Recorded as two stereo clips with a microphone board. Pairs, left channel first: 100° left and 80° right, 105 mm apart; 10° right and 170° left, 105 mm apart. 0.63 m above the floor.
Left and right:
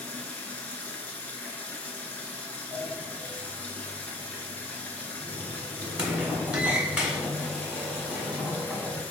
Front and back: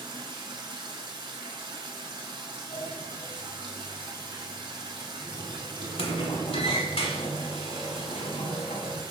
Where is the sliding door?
Straight ahead, 1.0 m.